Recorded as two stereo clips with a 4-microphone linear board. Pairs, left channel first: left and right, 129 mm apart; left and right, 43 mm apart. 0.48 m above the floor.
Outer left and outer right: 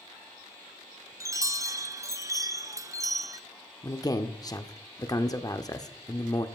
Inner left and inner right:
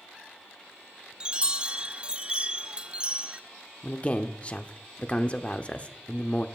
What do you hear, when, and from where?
1.2 s a chime: 25° right (ahead or behind), 0.5 m
3.8 s a man speaking: 30° left (ahead or behind), 0.8 m